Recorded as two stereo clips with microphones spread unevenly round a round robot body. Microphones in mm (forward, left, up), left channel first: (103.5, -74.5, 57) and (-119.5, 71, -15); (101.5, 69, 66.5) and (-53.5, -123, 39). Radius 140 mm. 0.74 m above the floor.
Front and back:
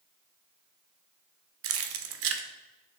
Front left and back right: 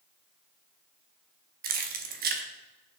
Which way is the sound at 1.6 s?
175° left.